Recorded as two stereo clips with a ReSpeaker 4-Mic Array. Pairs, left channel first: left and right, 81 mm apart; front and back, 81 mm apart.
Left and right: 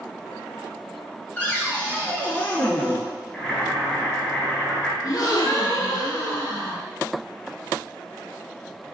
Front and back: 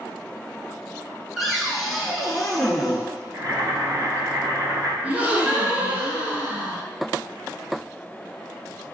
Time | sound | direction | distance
1.4 | a cupboard door | 95° left | 0.6 m
3.3 | boiling | 170° left | 1.1 m
5.0 | a gasp | 115° left | 0.6 m